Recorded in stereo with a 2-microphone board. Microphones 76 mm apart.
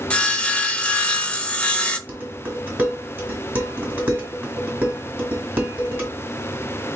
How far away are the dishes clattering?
About 1.5 m.